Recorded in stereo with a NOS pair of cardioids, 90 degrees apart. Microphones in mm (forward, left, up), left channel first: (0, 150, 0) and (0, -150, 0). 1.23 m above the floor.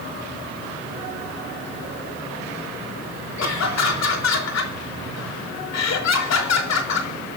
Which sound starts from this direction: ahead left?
Laughter, at 3.4 s.